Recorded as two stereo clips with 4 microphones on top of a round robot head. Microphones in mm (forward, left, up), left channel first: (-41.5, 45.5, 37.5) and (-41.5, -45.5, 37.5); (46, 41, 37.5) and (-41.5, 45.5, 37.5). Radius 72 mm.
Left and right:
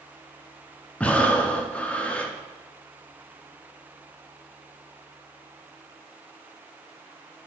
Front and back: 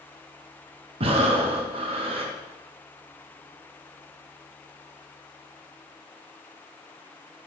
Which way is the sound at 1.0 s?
165° left.